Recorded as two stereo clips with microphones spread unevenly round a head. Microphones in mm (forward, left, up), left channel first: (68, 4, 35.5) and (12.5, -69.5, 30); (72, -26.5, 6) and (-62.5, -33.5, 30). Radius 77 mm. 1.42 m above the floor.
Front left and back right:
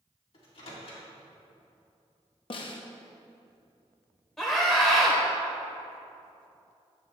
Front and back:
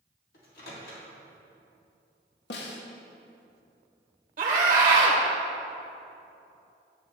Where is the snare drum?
30° left, 0.7 m.